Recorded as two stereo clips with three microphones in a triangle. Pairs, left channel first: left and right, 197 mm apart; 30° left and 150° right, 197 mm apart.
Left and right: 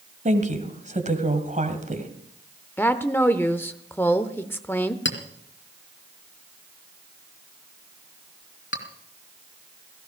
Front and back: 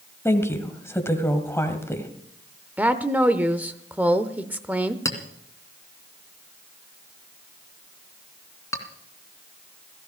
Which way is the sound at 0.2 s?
45° right.